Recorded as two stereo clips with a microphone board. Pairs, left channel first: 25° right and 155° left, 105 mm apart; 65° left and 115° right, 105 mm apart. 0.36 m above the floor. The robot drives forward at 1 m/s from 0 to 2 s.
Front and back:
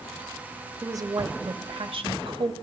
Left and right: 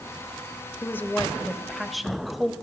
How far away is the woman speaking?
About 1.0 m.